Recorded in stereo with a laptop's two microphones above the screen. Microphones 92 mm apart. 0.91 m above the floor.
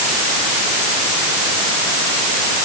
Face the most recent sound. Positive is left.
No sound to turn to.